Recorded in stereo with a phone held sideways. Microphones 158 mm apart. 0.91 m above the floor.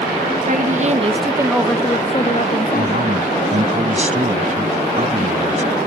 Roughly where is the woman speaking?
Right.